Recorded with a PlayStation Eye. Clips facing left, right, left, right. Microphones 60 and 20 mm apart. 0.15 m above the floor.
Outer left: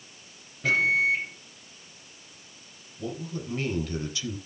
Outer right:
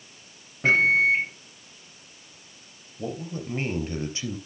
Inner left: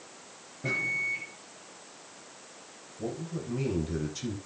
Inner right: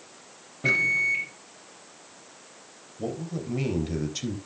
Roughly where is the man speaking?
Right.